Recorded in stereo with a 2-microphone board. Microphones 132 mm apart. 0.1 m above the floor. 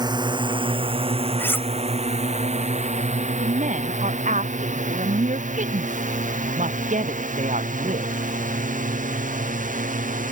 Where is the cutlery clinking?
15° left (ahead or behind).